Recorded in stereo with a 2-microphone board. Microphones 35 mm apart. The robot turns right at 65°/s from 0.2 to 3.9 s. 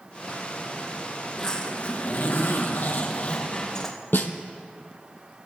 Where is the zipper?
5° left, 3 m; by 4.0 s 175° left, 3 m.